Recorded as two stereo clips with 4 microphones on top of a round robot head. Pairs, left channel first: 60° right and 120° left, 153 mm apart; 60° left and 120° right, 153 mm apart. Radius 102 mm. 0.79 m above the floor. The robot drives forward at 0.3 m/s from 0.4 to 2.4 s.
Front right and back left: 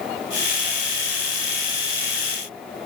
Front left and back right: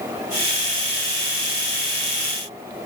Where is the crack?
No crack in this recording.